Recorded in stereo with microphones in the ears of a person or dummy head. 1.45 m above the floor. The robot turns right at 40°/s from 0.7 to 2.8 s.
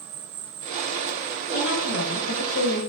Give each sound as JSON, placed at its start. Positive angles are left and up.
{"t": 0.0, "sound": "an insect", "azimuth_deg": -60, "distance_m": 0.9}
{"t": 1.5, "sound": "a woman speaking", "azimuth_deg": 60, "distance_m": 1.4}